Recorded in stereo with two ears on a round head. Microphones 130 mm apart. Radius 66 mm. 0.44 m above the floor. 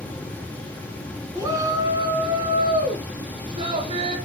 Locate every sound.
1.4 s a shout: 20° right (ahead or behind), 4.5 m; by 4.2 s 35° right (ahead or behind), 6 m